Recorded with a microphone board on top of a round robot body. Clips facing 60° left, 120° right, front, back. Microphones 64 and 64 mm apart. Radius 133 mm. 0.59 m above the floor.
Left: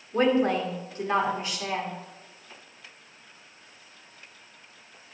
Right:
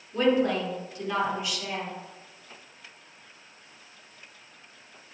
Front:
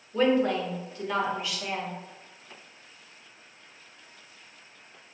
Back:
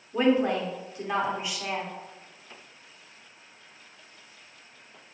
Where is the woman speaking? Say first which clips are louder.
Left 1 dB, even; 110° left, 2.5 m.